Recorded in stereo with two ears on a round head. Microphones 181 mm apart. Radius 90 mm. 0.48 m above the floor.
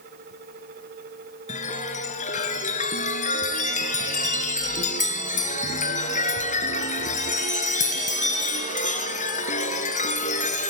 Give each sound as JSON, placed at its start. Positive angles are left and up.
{"t": 1.5, "sound": "a chime", "side_deg": 40, "distance_m": 2.0}